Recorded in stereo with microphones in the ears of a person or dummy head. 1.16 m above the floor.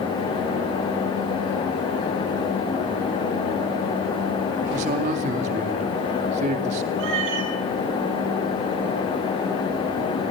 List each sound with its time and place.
4.7 s a man speaking: 40° right (ahead or behind), 2.5 m
7.0 s a cat meowing: 65° right (ahead or behind), 6 m